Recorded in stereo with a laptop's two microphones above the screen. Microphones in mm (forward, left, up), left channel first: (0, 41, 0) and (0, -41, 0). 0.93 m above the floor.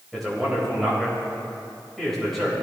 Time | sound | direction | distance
0.1 | a man speaking | centre (ahead or behind) | 3.5 m